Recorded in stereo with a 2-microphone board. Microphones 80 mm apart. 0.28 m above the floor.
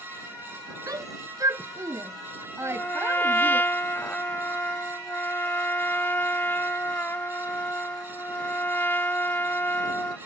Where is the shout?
50° right (ahead or behind); by 3.6 s 30° right (ahead or behind).